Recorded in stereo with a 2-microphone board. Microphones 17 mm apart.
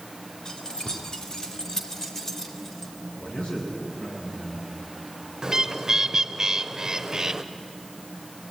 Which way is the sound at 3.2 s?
90° left.